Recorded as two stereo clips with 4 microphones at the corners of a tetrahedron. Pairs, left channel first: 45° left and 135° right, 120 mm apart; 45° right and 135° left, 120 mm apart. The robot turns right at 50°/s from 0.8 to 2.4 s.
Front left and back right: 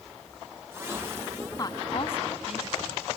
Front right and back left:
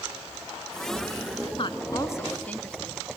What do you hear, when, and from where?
1.6 s a woman speaking: 10° right, 1.9 m; by 3.0 s 30° left, 1.9 m